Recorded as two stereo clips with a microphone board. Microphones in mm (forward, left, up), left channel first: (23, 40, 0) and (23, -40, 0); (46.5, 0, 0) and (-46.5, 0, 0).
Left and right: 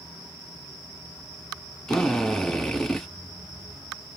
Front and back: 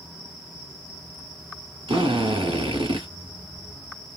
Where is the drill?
175° left, 1.2 m.